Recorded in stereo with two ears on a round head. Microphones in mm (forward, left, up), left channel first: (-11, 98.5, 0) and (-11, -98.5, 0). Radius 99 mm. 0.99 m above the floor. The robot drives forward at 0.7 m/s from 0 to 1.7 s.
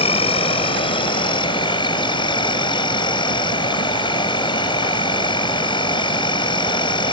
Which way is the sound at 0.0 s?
30° left (ahead or behind).